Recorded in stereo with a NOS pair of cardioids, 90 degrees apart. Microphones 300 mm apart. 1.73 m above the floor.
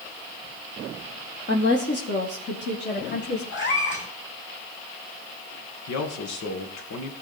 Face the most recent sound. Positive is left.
turn(degrees=65)